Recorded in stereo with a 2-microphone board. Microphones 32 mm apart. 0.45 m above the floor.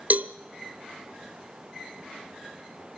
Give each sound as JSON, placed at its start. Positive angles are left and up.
{"t": 0.1, "sound": "a cowbell", "side_deg": -60, "distance_m": 0.7}